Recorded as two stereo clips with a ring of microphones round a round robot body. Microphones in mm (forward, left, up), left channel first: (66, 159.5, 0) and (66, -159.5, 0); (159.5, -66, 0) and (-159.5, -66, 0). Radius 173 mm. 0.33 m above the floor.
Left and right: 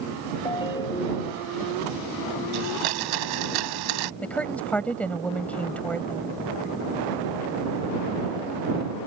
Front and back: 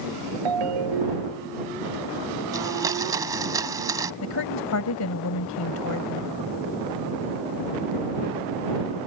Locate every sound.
0.5 s a ringtone: 170° left
2.5 s a blender: 100° right
4.2 s a woman speaking: 5° left